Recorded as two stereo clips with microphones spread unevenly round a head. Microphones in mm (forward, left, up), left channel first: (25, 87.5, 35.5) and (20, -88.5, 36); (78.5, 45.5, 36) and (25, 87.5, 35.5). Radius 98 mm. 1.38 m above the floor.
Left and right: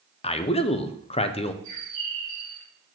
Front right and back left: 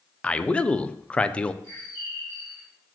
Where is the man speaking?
35° left, 0.7 m.